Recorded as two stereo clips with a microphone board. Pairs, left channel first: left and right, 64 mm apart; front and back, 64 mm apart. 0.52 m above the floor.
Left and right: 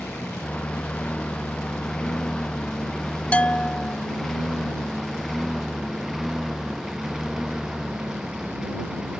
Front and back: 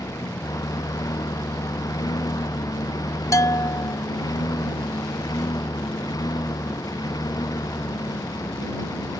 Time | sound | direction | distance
0.0 | a lawn mower | 20° left | ?
3.3 | a bell | 25° left | ?